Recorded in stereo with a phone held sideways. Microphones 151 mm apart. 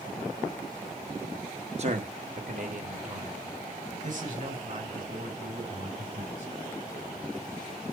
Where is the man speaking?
45° right (ahead or behind), 1.3 m; by 6.5 s 55° right (ahead or behind), 8 m.